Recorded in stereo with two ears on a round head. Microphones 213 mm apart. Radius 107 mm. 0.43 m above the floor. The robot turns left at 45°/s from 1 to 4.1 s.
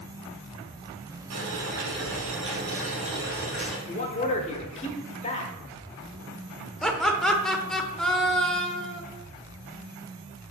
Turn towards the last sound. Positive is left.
turn(degrees=5)  # may be behind; listen again after turning